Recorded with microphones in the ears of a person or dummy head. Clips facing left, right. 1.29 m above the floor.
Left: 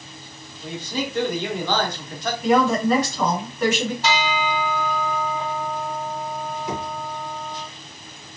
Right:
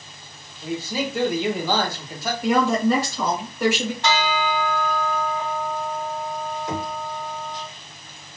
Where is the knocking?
5° left (ahead or behind), 1.1 m.